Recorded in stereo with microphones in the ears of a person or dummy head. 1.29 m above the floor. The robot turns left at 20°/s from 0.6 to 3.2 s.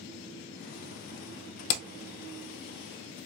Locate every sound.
1.7 s hammering: 50° left (ahead or behind), 0.6 m; by 1.8 s 45° left (ahead or behind), 0.6 m